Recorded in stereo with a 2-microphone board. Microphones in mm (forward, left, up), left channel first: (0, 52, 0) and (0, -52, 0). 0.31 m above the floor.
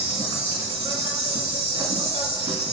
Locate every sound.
0.0 s an insect: 70° right (ahead or behind), 1.5 m